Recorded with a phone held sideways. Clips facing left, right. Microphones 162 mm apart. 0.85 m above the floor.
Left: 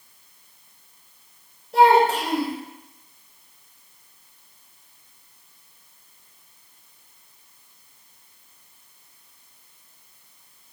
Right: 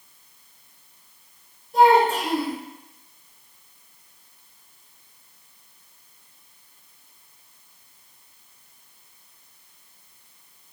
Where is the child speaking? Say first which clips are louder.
Even; 75° left (ahead or behind), 0.8 m.